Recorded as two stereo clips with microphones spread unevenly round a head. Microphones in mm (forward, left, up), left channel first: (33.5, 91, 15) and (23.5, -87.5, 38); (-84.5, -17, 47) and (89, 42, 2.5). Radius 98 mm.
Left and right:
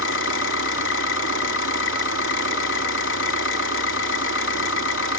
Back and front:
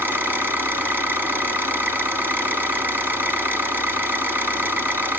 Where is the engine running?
100° left, 1.6 m.